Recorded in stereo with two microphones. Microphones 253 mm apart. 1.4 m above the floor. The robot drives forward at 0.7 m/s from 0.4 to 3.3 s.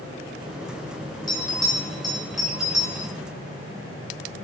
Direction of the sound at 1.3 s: 15° left (ahead or behind).